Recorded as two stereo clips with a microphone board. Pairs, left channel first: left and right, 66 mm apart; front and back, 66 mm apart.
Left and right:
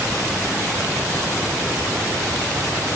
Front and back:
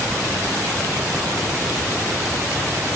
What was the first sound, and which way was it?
Only background noise.